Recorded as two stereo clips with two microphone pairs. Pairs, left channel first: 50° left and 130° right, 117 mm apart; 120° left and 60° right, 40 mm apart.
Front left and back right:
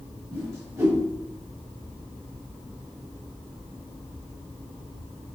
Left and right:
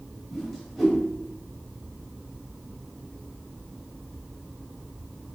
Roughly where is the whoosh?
Behind right.